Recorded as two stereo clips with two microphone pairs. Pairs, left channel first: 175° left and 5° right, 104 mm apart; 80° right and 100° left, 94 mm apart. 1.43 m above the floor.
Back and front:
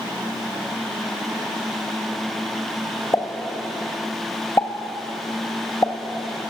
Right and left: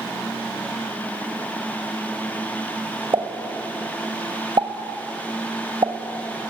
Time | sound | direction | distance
3.1 | a pop | 120° left | 2 m